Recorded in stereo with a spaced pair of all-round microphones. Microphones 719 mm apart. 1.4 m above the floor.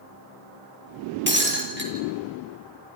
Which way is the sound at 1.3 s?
15° right (ahead or behind).